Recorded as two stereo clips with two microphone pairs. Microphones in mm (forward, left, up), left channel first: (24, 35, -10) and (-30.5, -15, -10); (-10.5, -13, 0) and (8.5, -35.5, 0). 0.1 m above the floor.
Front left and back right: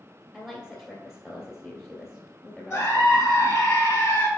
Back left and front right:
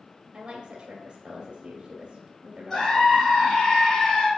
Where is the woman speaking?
60° right, 1.7 m.